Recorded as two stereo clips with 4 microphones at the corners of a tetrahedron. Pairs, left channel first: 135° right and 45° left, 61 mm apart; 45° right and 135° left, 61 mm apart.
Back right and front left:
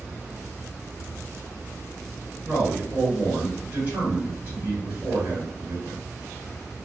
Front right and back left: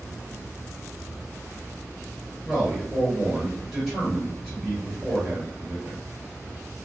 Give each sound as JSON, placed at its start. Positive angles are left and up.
{"t": 2.5, "sound": "a man speaking", "azimuth_deg": 55, "distance_m": 2.0}